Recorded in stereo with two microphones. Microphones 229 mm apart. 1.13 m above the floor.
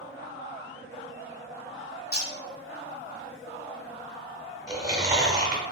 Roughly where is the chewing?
Centre.